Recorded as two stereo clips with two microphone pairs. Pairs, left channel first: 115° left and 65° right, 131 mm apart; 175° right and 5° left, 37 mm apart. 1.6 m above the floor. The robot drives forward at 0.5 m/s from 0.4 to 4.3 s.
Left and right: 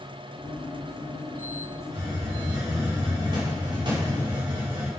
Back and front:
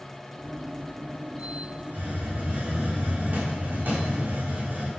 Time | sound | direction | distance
1.9 | a hiss | 10° right | 6 m